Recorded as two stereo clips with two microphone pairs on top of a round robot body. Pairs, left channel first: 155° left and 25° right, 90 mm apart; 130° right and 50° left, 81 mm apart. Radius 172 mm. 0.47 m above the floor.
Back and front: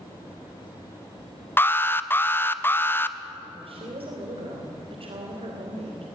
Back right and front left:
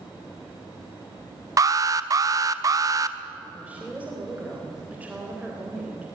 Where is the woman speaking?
25° right, 3.5 m.